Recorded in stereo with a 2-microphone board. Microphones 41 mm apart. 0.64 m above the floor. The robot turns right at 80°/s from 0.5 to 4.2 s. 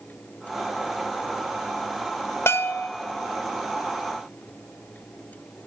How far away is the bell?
About 0.7 m.